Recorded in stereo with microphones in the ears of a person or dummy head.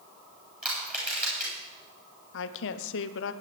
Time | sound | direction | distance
0.6 | crushing | 5° right (ahead or behind) | 8.5 m
2.3 | a woman speaking | 70° left (ahead or behind) | 1.0 m